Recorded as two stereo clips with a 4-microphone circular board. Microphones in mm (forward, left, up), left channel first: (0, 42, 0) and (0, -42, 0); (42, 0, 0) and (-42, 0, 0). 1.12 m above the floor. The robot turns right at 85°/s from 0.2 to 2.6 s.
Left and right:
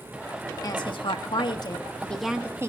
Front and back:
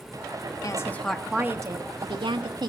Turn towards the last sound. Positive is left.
turn(degrees=-150)